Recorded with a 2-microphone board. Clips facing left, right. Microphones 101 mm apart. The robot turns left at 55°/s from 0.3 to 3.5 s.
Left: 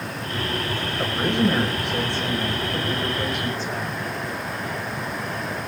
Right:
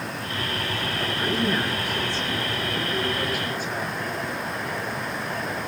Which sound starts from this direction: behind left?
A man speaking, at 1.0 s.